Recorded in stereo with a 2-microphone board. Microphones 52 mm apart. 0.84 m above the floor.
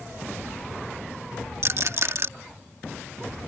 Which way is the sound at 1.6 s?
60° right (ahead or behind).